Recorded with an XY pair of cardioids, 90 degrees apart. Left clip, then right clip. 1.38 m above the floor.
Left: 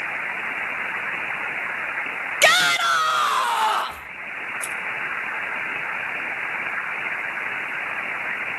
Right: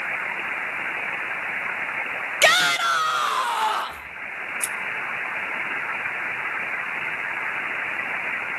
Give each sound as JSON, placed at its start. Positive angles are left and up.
{"t": 2.4, "sound": "a shout", "azimuth_deg": 5, "distance_m": 0.8}
{"t": 4.6, "sound": "scissors", "azimuth_deg": -45, "distance_m": 1.3}